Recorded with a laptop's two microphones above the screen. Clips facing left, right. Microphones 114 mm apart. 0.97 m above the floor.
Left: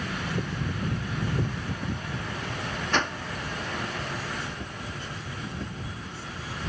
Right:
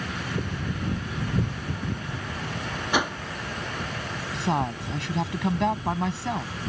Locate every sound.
2.9 s a whoosh: 10° right (ahead or behind)
4.3 s a woman speaking: 75° right (ahead or behind)